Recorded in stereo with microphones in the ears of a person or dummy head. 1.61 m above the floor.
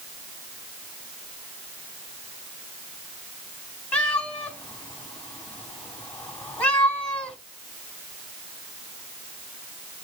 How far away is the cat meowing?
About 3.5 m.